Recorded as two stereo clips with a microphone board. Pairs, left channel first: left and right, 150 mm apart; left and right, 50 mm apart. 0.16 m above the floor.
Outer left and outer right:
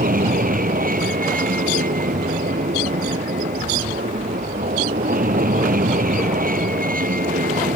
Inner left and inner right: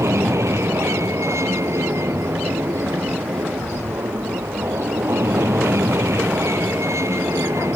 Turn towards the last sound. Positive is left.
turn(degrees=-70)  # may be behind; listen again after turning